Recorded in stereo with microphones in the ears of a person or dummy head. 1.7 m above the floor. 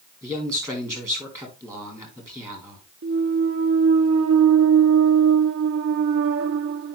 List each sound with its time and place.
0.2 s a man speaking: 20° right (ahead or behind), 4 m
3.0 s a clunk: 60° right (ahead or behind), 0.8 m